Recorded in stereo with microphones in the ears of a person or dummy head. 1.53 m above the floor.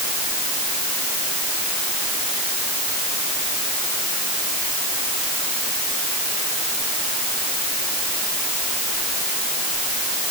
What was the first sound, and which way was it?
Only background noise.